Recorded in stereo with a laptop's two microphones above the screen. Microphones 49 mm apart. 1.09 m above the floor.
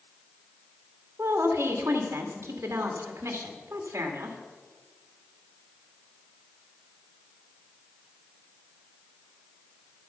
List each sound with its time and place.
1.2 s a woman speaking: 65° right (ahead or behind), 2.5 m